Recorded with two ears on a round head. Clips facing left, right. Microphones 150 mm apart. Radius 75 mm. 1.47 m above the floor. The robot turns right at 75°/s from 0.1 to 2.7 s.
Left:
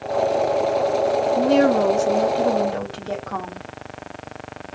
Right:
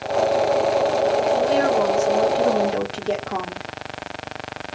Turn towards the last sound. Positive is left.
turn(degrees=-160)